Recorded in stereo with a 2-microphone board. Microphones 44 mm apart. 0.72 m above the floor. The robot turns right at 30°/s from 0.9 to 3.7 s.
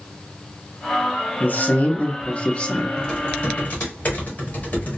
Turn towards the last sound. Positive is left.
turn(degrees=40)  # may be behind; listen again after turning